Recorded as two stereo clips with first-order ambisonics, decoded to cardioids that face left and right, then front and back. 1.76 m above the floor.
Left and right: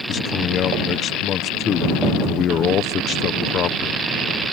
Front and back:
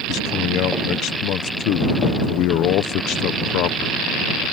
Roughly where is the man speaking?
Ahead left.